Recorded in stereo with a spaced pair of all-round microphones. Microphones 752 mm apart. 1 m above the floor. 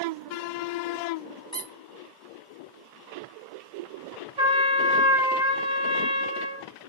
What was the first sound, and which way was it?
A squeak, 10° left (ahead or behind).